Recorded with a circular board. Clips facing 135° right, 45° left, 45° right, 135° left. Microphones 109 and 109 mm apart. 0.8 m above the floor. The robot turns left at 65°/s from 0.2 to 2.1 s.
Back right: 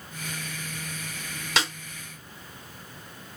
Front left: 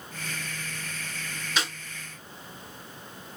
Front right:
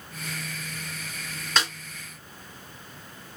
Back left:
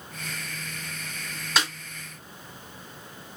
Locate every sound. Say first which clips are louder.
1.6 s a snare drum: back right 3 dB, even; 140° right, 1.3 m; by 1.7 s 150° right, 1.3 m